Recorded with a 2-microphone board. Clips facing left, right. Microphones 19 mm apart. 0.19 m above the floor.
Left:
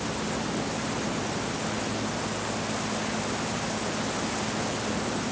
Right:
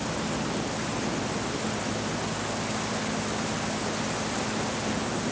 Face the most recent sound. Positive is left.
No sound to turn to.